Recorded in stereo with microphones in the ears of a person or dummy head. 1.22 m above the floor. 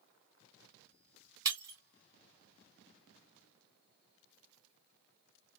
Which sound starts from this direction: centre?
Breaking glass, at 1.4 s.